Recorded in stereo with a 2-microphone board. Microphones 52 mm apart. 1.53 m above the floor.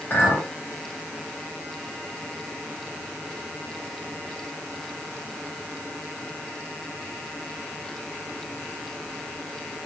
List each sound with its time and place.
0.1 s a clink: 40° left (ahead or behind), 1.7 m